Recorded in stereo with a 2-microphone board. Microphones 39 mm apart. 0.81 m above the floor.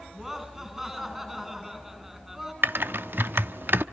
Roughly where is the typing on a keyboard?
Right.